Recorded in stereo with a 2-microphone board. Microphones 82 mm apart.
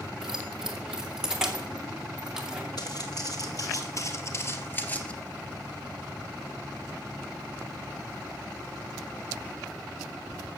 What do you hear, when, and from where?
0.2 s keys jangling: 5° right (ahead or behind), 2.5 m
2.8 s footsteps: 60° left (ahead or behind), 3 m; by 5.1 s 15° left (ahead or behind), 1.6 m